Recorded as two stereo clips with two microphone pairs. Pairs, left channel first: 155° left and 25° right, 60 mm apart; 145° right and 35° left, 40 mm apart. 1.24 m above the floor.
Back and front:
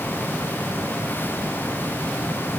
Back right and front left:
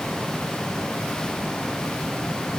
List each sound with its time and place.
Only background noise.